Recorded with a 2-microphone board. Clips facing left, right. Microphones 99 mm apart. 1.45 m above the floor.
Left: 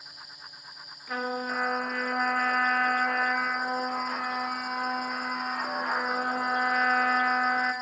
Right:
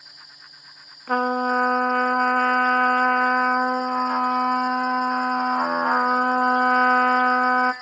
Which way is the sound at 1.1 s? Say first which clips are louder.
Right 10 dB; 55° right (ahead or behind).